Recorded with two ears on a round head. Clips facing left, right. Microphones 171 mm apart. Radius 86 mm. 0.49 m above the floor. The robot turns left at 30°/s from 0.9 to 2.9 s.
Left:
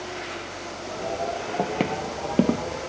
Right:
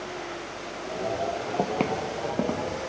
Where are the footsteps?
5° right (ahead or behind), 0.7 m; by 2.6 s 45° left (ahead or behind), 0.6 m.